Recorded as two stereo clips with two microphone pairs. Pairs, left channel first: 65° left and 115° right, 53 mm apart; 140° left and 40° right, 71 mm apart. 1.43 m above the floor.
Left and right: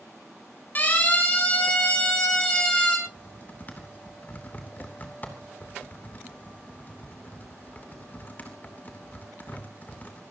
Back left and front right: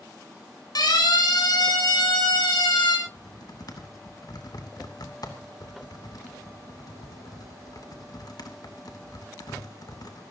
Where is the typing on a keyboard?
115° left, 3 m.